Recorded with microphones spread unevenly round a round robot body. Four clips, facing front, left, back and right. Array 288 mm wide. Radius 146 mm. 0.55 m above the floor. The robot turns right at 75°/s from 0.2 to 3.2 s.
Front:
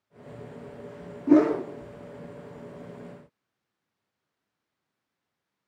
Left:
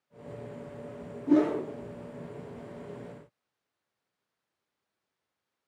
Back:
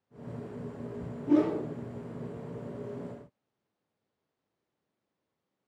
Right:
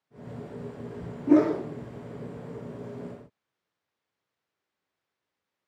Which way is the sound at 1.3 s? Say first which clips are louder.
Right 3 dB, front 6 dB; 30° right.